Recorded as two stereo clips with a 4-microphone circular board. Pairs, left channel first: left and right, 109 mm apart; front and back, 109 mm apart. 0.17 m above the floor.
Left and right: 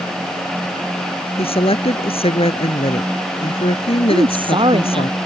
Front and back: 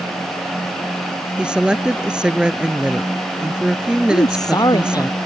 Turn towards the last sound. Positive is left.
turn(degrees=-55)